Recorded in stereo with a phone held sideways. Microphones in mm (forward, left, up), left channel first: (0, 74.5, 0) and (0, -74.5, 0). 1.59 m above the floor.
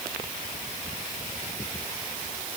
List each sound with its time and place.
Only background noise.